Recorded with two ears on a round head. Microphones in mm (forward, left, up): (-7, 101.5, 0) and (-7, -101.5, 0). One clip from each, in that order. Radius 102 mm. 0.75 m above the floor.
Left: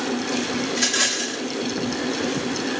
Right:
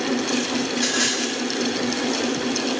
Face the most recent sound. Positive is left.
turn(degrees=20)  # may be behind; listen again after turning